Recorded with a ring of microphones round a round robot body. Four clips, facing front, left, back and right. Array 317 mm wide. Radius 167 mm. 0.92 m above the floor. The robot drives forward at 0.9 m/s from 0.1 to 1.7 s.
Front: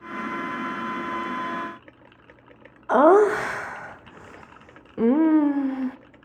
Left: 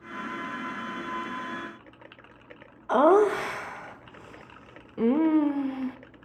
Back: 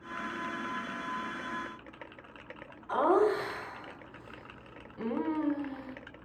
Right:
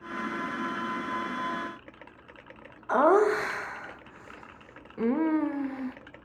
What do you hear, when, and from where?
2.9 s laughter: 15° left, 0.7 m